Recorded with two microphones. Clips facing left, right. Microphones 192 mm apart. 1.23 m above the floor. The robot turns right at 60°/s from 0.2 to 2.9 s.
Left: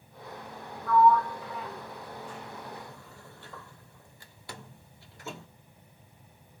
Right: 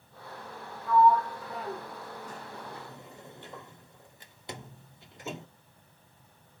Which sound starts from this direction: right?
A sliding door, at 0.9 s.